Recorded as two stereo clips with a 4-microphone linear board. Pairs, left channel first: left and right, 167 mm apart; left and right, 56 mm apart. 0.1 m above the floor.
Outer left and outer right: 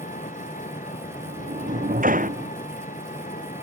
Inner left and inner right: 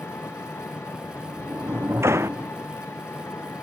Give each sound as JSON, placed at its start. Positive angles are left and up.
{"t": 0.0, "sound": "an engine running", "side_deg": 55}
{"t": 1.0, "sound": "a sliding door", "side_deg": -60}